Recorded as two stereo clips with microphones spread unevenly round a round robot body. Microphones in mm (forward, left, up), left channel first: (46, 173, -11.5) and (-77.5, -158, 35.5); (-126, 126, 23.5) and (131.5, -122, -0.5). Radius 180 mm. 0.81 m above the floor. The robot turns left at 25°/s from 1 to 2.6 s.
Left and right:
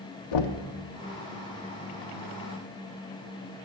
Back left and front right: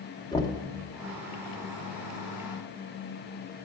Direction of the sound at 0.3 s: 55° left.